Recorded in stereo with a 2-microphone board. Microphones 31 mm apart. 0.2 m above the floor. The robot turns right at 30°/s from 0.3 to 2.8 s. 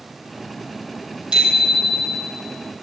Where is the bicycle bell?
30° right, 4.5 m; by 2.3 s straight ahead, 4.5 m.